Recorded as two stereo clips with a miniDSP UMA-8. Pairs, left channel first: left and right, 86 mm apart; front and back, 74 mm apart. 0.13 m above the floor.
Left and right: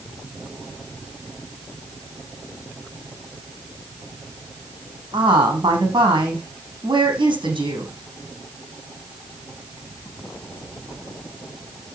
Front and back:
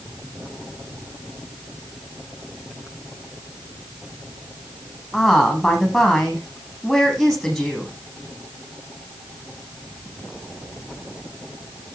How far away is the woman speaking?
About 6 m.